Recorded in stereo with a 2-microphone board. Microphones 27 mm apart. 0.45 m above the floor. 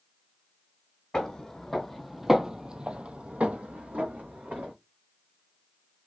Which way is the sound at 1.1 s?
25° left (ahead or behind).